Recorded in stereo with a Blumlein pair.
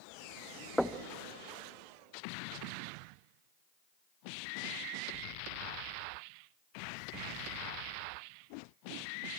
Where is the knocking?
Straight ahead, 0.7 m.